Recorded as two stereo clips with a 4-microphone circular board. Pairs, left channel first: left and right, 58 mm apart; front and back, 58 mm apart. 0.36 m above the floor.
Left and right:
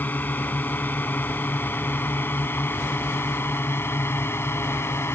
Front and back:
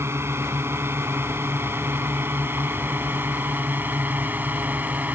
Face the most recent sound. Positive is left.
turn(degrees=125)